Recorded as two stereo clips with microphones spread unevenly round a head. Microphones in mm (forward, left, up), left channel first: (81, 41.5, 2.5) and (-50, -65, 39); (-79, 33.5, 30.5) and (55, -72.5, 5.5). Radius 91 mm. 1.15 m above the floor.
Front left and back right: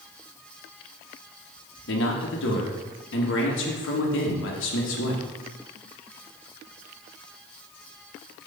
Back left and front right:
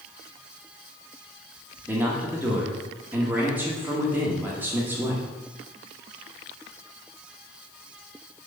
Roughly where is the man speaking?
Ahead left.